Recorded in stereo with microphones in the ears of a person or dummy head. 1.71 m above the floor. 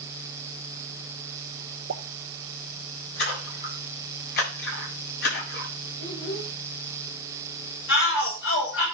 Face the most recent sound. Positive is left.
turn(degrees=75)  # may be behind; listen again after turning